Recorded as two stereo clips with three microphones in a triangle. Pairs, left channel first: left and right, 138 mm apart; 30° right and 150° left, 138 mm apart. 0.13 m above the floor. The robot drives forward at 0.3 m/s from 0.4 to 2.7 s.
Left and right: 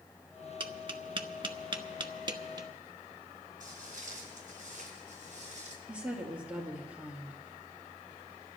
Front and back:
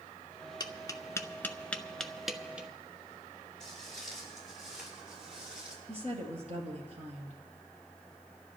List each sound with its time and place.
0.6 s tapping: 70° right, 0.8 m; by 2.7 s 130° right, 0.9 m
3.6 s footsteps: 120° right, 9 m; by 5.8 s 125° right, 8 m
5.9 s a woman speaking: 170° right, 2 m